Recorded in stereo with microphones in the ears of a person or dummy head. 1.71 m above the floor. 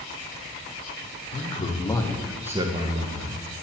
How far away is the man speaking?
About 1.0 m.